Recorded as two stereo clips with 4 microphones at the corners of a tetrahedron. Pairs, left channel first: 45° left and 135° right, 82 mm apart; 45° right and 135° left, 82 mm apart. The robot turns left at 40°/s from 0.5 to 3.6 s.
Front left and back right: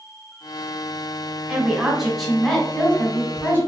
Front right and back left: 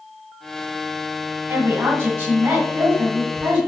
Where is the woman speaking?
155° left, 1.2 m; by 3.6 s 75° left, 1.2 m.